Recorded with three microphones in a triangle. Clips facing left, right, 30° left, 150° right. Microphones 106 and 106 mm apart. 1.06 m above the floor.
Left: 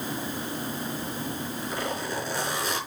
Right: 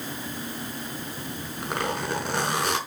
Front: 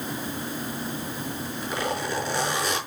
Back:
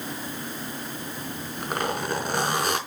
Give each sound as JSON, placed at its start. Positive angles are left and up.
{"t": 1.2, "sound": "a zipper", "azimuth_deg": -115, "distance_m": 4.5}